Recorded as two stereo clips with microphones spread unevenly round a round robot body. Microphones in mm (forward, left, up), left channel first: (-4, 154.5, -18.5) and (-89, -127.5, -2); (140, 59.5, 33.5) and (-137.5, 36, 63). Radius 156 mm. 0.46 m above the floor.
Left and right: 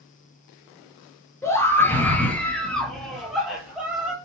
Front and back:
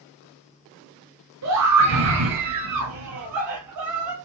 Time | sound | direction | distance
1.4 | a scream | 155° left | 7 m